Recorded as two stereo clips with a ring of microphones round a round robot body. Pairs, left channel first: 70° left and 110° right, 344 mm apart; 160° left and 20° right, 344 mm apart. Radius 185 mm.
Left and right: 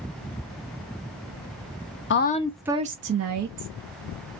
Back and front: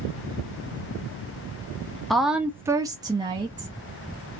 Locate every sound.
2.1 s a woman speaking: 70° left, 0.6 m; by 3.8 s 100° right, 0.9 m